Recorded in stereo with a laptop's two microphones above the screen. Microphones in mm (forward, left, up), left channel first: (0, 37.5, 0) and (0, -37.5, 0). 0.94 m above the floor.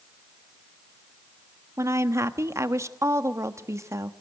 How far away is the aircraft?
I don't hear an aircraft.